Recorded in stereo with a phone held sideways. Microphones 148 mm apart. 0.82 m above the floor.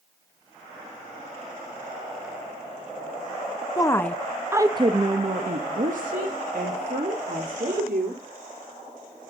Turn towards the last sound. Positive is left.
turn(degrees=-75)  # may be behind; listen again after turning